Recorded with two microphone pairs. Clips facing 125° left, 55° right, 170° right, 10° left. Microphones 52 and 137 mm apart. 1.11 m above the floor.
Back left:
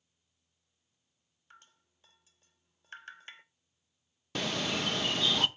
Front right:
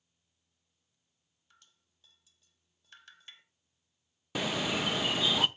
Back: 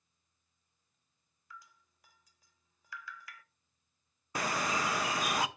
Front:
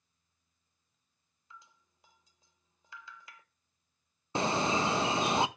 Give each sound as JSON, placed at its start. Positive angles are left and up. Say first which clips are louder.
{"t": 1.5, "sound": "dripping", "louder": "back left 8 dB, back 2 dB", "azimuth_deg": 75, "distance_m": 0.7}
{"t": 4.3, "sound": "a bird", "louder": "front right 1 dB, front 5 dB", "azimuth_deg": 5, "distance_m": 0.6}